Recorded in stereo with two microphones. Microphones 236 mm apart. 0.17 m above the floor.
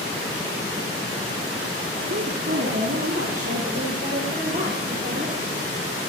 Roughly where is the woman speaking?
Right.